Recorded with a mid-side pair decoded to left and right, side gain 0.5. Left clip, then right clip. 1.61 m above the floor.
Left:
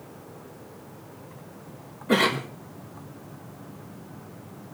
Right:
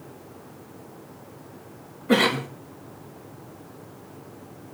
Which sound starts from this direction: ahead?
A cough, at 2.1 s.